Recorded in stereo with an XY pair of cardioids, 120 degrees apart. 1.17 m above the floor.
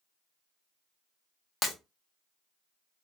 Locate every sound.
1.6 s breaking glass: 40° left, 1.1 m